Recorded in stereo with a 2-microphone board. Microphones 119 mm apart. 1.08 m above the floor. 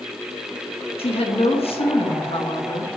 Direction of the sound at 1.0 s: 50° left (ahead or behind).